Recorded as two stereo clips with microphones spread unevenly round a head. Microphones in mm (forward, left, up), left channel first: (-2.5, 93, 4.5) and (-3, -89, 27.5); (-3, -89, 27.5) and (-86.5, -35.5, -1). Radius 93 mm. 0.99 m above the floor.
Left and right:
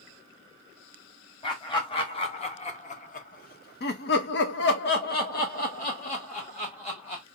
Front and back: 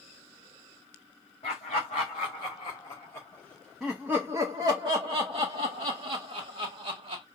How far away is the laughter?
About 1.8 m.